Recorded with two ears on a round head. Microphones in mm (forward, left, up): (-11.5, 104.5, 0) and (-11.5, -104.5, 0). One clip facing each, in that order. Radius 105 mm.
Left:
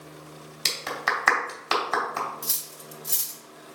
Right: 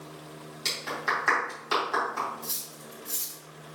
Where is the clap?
75° left (ahead or behind), 3 m.